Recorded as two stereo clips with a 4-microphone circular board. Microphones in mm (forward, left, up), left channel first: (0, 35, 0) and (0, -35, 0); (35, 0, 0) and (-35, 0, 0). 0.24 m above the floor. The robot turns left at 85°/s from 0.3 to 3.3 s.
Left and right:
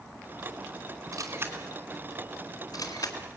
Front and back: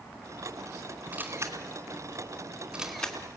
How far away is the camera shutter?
About 2.5 m.